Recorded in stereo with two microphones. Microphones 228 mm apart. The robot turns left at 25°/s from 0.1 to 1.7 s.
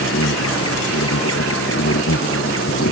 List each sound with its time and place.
0.0 s an insect: 110° left; by 2.9 s 70° left